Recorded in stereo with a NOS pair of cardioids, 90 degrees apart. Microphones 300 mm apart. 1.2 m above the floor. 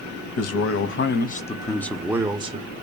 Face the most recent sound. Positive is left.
turn(degrees=-25)